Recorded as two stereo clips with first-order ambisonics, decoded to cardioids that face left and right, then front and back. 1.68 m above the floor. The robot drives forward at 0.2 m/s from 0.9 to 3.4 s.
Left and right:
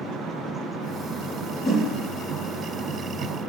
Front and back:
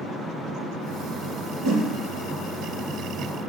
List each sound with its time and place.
1.6 s a whoosh: 165° left, 1.0 m